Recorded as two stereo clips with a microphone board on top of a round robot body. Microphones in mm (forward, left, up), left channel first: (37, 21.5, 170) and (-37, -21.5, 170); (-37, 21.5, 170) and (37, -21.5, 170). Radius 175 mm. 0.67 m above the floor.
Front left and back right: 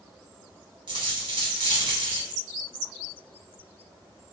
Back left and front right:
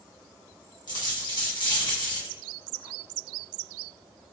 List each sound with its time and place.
0.9 s a dropped coin: 175° right, 1.5 m